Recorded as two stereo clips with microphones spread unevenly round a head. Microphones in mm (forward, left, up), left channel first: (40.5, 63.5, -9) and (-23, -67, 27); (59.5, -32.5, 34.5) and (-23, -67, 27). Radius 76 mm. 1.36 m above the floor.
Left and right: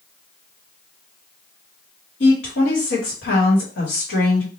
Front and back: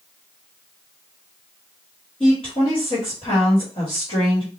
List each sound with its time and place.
2.2 s a woman speaking: 75° left, 1.6 m